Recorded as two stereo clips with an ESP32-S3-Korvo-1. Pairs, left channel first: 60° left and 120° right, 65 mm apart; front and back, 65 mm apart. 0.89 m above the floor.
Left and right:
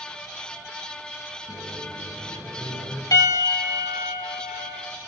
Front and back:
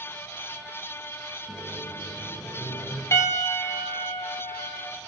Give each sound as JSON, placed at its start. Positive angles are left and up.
{"t": 1.5, "sound": "a microwave", "azimuth_deg": 0, "distance_m": 4.5}
{"t": 3.1, "sound": "a piano", "azimuth_deg": 40, "distance_m": 1.2}